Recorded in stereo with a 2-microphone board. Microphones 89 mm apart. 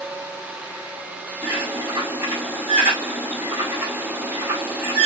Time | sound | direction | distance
1.4 | a bird | 25° right (ahead or behind) | 6.5 m